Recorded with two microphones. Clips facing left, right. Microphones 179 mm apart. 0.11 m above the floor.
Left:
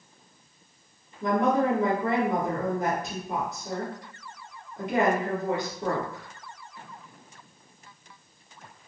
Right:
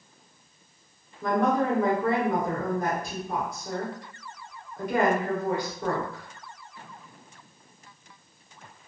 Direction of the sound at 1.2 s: 25° left (ahead or behind).